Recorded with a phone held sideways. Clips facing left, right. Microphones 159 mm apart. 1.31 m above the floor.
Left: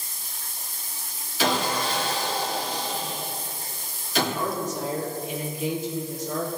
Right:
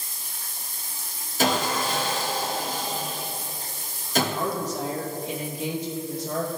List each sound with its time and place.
1.4 s sawing: 45° right (ahead or behind), 1.6 m
4.3 s a woman speaking: 80° right, 1.7 m